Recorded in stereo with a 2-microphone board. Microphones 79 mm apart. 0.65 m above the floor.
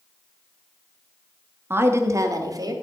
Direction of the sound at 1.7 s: 30° right (ahead or behind).